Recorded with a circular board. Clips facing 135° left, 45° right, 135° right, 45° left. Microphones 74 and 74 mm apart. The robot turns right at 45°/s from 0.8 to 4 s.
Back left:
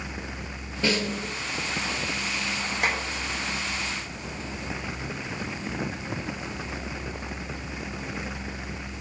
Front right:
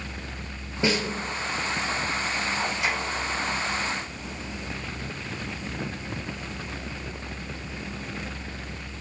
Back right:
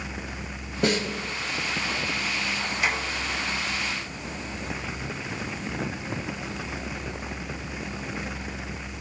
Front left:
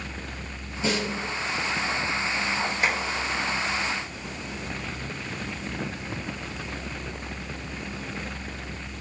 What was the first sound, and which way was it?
A snare drum, 115° right.